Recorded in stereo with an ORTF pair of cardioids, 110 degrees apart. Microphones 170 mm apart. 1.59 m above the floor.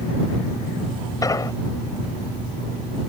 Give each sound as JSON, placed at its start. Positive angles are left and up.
{"t": 1.2, "sound": "an explosion", "azimuth_deg": 20}